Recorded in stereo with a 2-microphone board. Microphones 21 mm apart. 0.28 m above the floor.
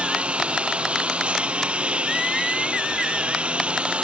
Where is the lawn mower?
75° right (ahead or behind).